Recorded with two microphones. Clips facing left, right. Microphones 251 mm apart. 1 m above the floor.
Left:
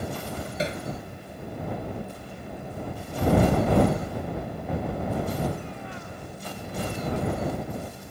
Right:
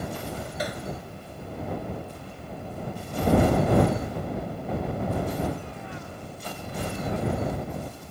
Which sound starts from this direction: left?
Hammering, at 0.6 s.